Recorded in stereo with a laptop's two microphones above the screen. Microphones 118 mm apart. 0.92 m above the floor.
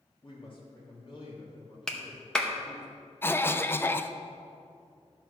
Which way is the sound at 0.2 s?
45° left (ahead or behind).